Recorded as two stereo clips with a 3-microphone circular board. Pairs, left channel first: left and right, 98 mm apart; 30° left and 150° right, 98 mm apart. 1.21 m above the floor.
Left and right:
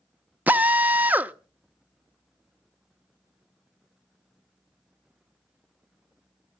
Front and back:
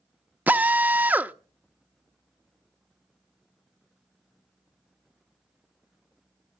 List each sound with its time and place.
0.5 s a drill: 125° right, 0.6 m